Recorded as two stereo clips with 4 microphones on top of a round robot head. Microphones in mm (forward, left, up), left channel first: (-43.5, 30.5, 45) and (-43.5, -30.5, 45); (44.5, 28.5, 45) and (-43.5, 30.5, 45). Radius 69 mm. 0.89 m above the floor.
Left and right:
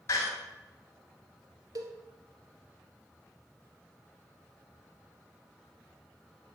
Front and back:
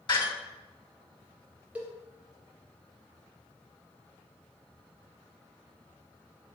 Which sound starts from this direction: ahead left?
A door slam, at 0.1 s.